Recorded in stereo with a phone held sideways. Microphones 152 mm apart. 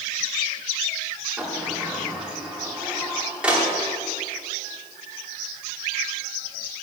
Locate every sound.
1.4 s a sliding door: 10° right (ahead or behind), 3 m